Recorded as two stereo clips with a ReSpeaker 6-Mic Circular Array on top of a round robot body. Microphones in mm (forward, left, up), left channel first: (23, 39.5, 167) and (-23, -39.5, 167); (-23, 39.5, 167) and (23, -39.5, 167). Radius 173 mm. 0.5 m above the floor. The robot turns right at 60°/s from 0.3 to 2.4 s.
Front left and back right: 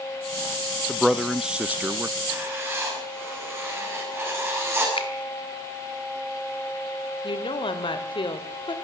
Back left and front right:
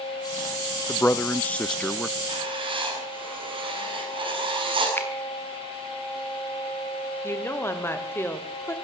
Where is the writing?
65° right, 7.5 m; by 4.9 s 55° right, 7.5 m.